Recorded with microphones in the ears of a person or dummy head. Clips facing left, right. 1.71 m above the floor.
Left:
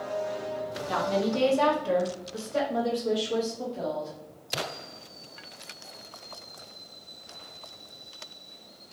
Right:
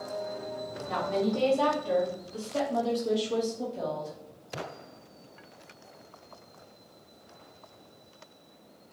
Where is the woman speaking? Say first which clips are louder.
Left 1 dB; 70° left (ahead or behind), 1.1 m; by 4.2 s 5° right (ahead or behind), 1.4 m.